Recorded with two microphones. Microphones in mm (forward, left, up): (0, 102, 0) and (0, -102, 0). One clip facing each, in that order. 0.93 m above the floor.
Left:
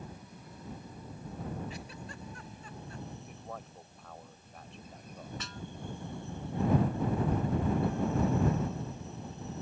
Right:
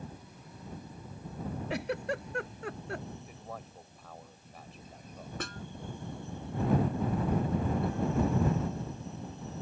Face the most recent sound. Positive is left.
turn(degrees=-50)  # may be behind; listen again after turning